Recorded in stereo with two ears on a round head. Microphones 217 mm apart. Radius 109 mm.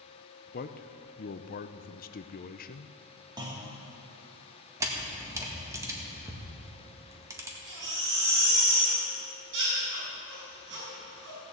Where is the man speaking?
35° left (ahead or behind), 0.6 m.